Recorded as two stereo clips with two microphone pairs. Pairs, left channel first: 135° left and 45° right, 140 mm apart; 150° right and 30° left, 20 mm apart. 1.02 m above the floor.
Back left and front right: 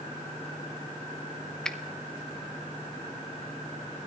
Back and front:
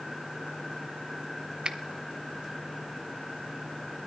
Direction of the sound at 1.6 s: 50° left.